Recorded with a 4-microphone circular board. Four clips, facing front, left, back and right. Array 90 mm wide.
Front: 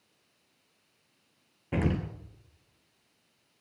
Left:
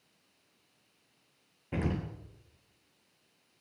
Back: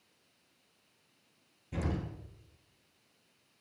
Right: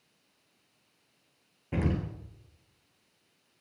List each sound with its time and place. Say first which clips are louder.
1.7 s an explosion: right 3 dB, front 7 dB; 5° right, 1.1 m